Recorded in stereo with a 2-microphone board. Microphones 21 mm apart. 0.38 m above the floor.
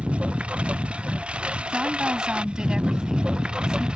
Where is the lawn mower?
70° right (ahead or behind); by 4.0 s 50° right (ahead or behind).